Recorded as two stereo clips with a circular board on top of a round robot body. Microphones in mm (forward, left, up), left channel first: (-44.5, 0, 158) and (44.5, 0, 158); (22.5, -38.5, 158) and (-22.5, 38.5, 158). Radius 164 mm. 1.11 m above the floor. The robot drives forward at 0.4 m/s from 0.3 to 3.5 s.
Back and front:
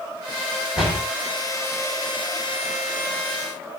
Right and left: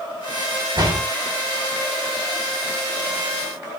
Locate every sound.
0.8 s a door slam: 80° left, 8 m